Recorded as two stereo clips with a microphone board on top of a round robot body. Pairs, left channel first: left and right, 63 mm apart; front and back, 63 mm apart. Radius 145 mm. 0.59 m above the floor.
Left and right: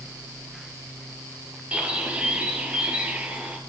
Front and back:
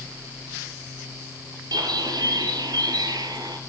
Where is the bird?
160° right, 4 m.